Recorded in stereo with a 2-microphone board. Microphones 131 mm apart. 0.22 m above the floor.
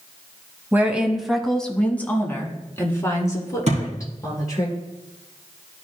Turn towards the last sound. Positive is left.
turn(degrees=-60)  # may be behind; listen again after turning